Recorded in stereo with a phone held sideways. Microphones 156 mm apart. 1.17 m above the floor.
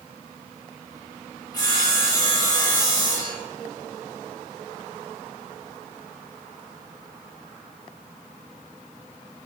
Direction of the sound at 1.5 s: 25° left (ahead or behind).